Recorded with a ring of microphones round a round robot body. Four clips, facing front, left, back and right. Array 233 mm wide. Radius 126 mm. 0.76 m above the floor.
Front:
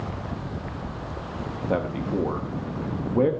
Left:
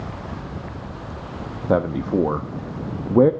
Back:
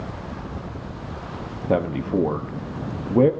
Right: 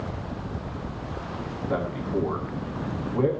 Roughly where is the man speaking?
Behind left.